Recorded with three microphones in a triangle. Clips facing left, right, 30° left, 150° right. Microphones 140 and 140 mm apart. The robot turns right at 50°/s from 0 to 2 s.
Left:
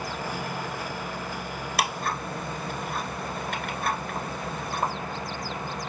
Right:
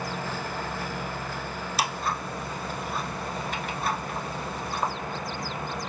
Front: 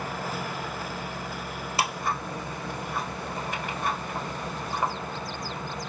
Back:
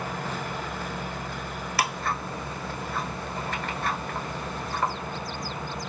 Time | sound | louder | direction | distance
1.8 | ticking | left 1 dB, even | 90° left | 1.0 m